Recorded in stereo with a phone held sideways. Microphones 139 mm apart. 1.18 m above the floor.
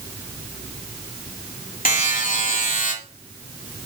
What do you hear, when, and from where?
1.9 s a buzzer: 80° left, 3.5 m